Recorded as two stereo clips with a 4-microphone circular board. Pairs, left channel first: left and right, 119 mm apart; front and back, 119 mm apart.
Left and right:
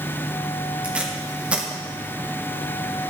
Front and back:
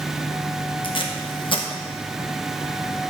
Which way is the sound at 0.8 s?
15° right.